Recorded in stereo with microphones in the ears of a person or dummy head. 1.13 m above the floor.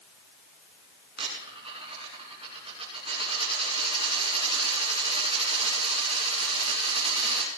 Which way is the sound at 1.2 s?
30° right (ahead or behind).